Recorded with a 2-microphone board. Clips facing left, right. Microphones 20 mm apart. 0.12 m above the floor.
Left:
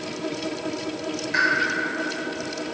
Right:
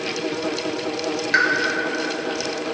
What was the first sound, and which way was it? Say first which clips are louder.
A pop: right 3 dB; 50° right (ahead or behind).